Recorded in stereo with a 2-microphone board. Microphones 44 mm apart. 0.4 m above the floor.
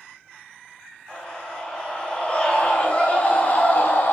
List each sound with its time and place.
1.1 s a scream: 15° left (ahead or behind), 4 m; by 4.1 s 45° left (ahead or behind), 3 m